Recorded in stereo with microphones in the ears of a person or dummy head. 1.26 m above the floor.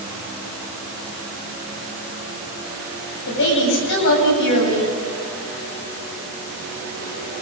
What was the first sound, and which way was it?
A woman speaking, 60° left (ahead or behind).